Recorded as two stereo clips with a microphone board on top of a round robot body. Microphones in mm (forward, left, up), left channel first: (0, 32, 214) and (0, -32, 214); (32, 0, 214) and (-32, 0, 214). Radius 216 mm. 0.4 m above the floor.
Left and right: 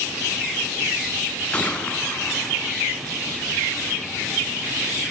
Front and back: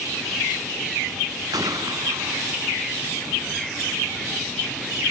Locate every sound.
1.5 s a gunshot: 160° left, 3 m